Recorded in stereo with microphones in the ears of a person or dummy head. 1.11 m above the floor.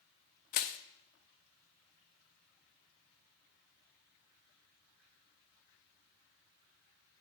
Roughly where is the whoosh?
No whoosh in this recording.